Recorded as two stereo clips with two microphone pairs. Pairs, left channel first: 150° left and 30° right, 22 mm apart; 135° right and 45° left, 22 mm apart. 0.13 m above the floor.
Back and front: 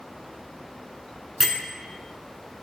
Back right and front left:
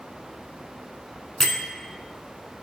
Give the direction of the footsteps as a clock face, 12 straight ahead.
No footsteps in this recording.